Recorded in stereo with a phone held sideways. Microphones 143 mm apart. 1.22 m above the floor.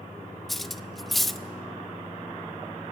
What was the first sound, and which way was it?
Cutlery clinking, centre (ahead or behind).